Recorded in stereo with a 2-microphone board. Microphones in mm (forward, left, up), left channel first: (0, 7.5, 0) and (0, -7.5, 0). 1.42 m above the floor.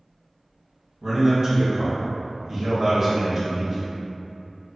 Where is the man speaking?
25° right (ahead or behind), 1.6 m.